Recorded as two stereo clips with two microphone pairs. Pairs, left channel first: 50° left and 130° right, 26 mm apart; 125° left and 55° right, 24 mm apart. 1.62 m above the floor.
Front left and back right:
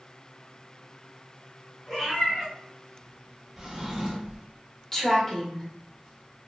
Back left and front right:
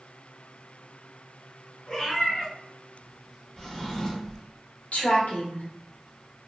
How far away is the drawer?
About 0.8 m.